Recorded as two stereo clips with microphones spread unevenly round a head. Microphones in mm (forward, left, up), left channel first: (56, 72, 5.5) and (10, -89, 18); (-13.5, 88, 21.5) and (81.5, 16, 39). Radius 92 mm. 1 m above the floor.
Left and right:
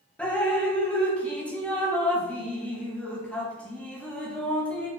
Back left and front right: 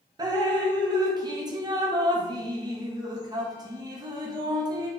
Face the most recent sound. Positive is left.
turn(degrees=5)